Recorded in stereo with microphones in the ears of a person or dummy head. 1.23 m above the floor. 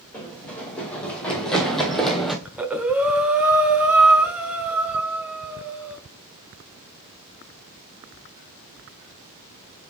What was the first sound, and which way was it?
Running footsteps, 10° left (ahead or behind).